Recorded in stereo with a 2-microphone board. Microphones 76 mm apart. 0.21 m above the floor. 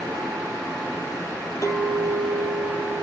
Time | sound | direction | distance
1.6 | a clink | 45° left (ahead or behind) | 4 m